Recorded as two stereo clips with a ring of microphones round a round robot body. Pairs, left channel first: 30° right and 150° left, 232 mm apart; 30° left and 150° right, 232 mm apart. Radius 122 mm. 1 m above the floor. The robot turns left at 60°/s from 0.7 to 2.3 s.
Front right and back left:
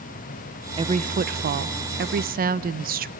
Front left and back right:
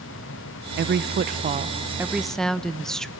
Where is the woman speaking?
150° right, 0.5 m; by 3.1 s 115° left, 0.5 m.